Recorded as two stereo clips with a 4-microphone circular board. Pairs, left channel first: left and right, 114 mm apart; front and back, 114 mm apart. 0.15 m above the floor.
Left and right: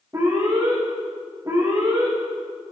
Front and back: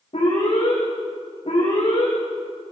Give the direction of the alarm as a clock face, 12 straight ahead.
1 o'clock.